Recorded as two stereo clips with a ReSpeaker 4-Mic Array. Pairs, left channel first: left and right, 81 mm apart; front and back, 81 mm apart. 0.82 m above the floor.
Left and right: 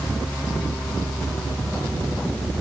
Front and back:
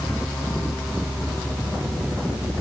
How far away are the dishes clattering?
I don't hear dishes clattering.